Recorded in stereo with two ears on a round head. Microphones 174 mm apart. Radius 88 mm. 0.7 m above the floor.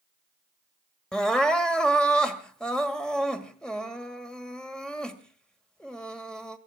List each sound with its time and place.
1.1 s crying: 5° left (ahead or behind), 1.7 m